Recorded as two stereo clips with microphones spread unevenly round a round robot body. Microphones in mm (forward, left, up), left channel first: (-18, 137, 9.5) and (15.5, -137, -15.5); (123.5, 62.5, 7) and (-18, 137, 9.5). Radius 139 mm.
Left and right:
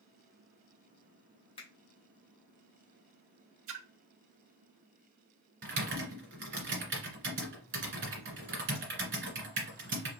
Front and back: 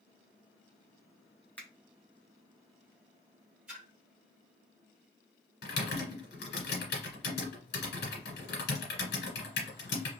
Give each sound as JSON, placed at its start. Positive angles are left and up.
{"t": 1.6, "sound": "a finger snap", "azimuth_deg": 40, "distance_m": 1.0}
{"t": 3.7, "sound": "a splash", "azimuth_deg": -125, "distance_m": 0.6}
{"t": 5.6, "sound": "typing on a keyboard", "azimuth_deg": -30, "distance_m": 2.0}